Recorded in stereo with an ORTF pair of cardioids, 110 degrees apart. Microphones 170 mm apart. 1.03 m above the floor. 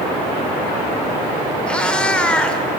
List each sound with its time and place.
1.7 s a cat meowing: 5° left, 2 m